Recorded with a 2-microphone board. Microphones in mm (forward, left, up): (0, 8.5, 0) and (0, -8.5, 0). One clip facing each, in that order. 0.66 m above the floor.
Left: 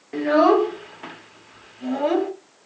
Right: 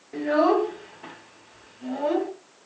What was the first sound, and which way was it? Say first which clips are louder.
A child speaking: left 4 dB; 40° left (ahead or behind).